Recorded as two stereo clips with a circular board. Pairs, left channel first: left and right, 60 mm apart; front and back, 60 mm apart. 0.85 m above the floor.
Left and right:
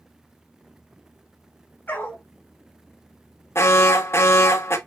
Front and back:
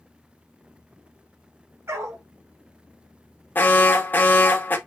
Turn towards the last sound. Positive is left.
turn(degrees=55)